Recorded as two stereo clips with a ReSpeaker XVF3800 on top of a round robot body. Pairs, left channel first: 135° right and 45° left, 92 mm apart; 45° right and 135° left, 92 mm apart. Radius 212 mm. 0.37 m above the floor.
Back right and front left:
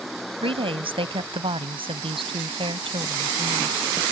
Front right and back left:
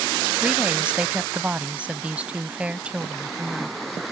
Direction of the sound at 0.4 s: 60° left.